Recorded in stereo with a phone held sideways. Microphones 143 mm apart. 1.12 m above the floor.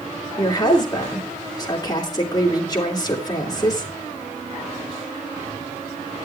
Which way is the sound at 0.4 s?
25° left (ahead or behind).